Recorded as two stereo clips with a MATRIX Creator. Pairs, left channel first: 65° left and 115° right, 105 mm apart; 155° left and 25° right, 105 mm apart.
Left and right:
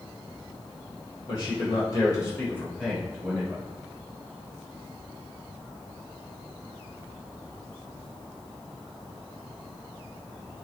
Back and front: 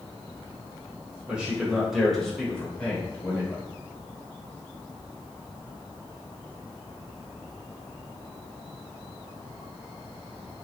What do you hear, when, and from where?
1.3 s a man speaking: 55° left, 1.6 m; by 3.6 s 165° right, 1.3 m